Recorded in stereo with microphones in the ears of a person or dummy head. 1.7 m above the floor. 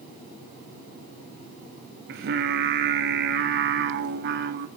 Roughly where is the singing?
Right.